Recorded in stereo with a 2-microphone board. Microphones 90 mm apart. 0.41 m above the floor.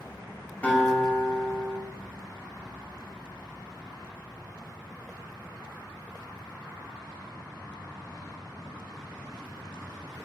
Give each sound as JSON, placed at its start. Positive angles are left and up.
{"t": 0.6, "sound": "a guitar", "side_deg": 20, "distance_m": 2.0}